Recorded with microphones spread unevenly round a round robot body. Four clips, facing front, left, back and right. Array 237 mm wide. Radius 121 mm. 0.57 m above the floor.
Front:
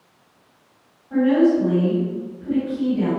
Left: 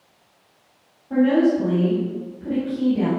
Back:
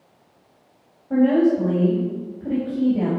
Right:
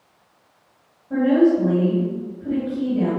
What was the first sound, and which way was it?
A woman speaking, 170° left.